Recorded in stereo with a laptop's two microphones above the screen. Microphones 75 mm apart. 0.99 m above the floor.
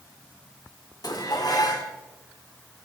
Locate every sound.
1.0 s dishes clattering: 55° left (ahead or behind), 1.9 m